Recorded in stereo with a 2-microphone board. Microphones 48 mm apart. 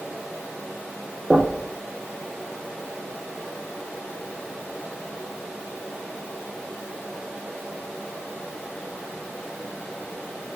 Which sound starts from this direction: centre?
Knocking, at 1.3 s.